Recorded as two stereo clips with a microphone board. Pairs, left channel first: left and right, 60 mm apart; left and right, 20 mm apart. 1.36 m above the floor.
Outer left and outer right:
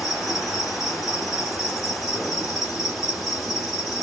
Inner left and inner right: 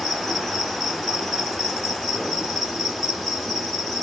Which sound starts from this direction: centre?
An insect, at 0.0 s.